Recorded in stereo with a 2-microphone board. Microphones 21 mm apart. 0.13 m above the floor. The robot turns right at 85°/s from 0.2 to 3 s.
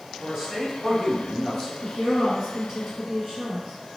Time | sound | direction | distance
0.2 | a man speaking | 65° right | 1.7 m
1.8 | a woman speaking | 115° left | 1.6 m